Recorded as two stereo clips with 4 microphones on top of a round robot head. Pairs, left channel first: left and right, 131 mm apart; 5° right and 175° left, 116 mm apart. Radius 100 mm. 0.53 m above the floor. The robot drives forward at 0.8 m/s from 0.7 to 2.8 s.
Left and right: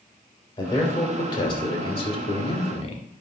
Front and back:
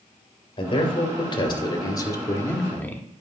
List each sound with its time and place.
0.6 s a man speaking: 30° left, 3 m; by 3.0 s 65° left, 1.8 m